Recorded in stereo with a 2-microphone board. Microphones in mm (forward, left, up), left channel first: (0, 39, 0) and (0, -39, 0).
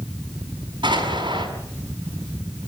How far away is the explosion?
About 6 m.